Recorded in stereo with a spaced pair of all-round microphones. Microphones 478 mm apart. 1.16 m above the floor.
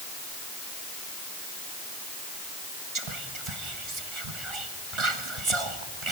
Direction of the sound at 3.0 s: 80° right.